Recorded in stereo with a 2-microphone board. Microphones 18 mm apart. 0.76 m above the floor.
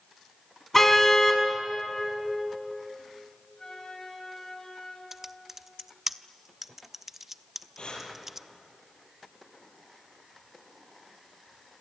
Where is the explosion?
I don't hear an explosion.